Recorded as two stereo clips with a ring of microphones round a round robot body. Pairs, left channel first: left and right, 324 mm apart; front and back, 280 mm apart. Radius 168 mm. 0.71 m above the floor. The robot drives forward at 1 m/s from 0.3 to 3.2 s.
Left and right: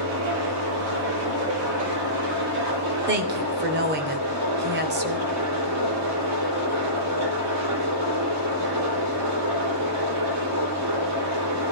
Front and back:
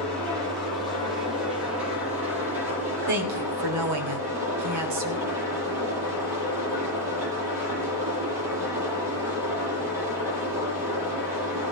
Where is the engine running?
120° right, 9.5 m; by 11.7 s 130° right, 11 m.